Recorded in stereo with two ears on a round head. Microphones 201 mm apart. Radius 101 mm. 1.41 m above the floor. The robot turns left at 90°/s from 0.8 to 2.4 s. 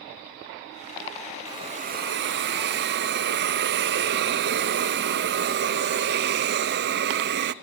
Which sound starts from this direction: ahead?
A hiss, at 1.5 s.